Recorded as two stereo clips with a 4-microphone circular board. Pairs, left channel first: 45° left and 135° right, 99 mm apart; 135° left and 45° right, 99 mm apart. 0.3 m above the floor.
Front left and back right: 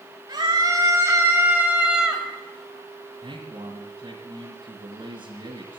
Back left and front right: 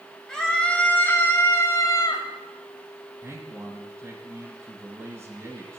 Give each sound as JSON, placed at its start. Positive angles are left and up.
{"t": 0.3, "sound": "a scream", "azimuth_deg": -140, "distance_m": 1.3}
{"t": 3.2, "sound": "a man speaking", "azimuth_deg": -110, "distance_m": 2.0}